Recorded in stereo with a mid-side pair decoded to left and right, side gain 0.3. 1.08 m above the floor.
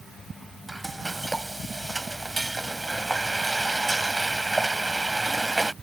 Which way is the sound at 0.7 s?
20° right.